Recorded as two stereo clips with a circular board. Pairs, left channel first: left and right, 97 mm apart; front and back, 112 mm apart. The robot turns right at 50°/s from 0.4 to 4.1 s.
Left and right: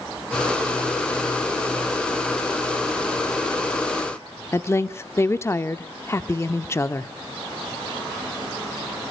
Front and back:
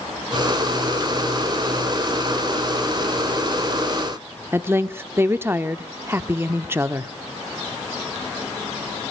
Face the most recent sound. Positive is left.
turn(degrees=125)